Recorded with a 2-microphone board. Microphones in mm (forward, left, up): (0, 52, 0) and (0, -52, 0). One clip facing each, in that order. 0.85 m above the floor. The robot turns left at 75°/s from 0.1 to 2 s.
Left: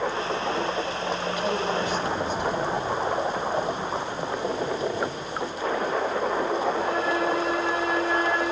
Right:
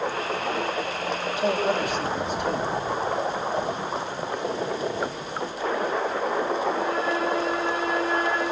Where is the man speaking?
20° right, 5.5 m; by 2.8 s 75° right, 5.5 m.